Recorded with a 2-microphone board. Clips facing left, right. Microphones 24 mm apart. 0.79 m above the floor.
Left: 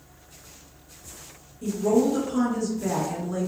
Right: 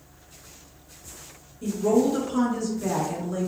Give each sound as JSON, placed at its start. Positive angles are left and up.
{"t": 1.6, "sound": "a woman speaking", "side_deg": -10, "distance_m": 0.8}